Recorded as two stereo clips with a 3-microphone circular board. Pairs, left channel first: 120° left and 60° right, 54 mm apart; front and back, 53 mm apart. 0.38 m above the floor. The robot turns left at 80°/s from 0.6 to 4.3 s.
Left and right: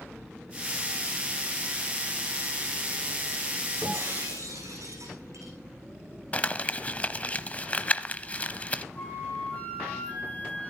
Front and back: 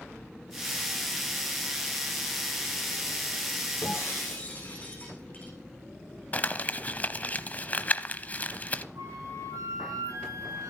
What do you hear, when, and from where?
3.8 s breaking glass: 20° right, 8.5 m; by 5.5 s 60° right, 8.5 m
6.3 s crumpling: 55° left, 0.9 m
8.9 s a flute: 175° right, 6 m